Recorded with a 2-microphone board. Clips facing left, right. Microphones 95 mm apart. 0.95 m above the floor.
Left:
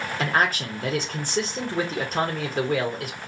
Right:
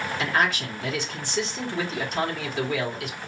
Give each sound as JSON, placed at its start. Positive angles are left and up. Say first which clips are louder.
{"t": 0.2, "sound": "a man speaking", "louder": "left 2 dB", "side_deg": 45, "distance_m": 1.0}